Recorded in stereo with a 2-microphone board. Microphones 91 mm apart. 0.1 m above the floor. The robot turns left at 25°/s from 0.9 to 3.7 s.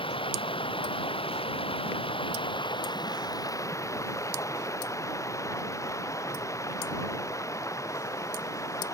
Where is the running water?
105° left; by 8.9 s 35° left.